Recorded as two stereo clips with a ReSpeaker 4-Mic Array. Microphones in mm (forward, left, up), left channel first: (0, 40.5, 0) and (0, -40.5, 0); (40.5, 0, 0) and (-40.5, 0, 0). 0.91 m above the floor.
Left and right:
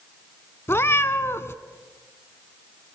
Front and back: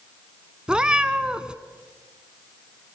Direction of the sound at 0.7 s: 110° left.